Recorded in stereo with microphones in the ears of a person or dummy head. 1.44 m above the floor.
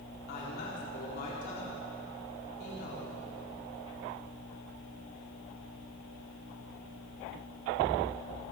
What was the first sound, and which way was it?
A woman speaking, 60° left (ahead or behind).